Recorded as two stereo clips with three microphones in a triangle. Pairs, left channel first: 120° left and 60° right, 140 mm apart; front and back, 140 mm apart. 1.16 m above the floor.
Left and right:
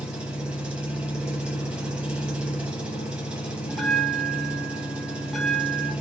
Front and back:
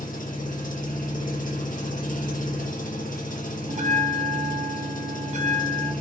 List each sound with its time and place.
0.0 s an engine running: 25° left, 1.2 m
3.7 s a bell: 150° right, 0.8 m